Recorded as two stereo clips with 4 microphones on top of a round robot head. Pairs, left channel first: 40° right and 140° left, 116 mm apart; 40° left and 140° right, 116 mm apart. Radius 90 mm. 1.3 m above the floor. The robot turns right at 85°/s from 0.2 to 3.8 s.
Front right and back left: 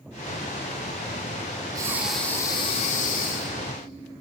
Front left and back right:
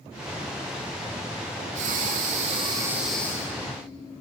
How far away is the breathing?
About 1.3 m.